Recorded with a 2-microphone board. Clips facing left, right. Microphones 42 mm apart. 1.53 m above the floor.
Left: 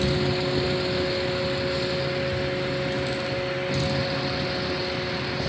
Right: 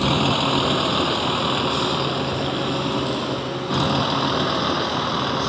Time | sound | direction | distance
0.0 | a vehicle | 70° right (ahead or behind) | ?